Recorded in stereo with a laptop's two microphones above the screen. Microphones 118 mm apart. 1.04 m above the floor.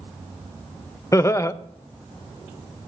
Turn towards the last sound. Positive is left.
turn(degrees=25)  # may be behind; listen again after turning